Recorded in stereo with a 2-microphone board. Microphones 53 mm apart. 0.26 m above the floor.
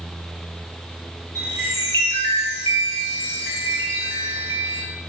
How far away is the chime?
About 7 m.